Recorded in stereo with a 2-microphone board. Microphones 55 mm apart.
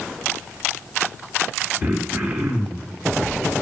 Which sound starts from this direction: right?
Throat clearing, at 1.8 s.